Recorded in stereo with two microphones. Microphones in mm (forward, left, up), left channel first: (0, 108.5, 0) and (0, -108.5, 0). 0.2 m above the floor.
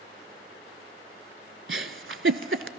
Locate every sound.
1.7 s a giggle: 65° right (ahead or behind), 0.6 m